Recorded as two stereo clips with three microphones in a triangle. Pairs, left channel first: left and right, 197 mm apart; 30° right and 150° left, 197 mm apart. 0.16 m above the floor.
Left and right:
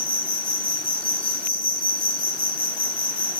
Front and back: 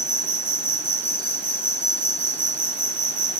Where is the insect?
80° right, 0.7 m.